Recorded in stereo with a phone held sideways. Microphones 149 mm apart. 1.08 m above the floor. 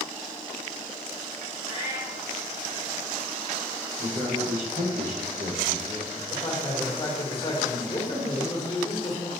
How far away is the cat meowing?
About 1.3 m.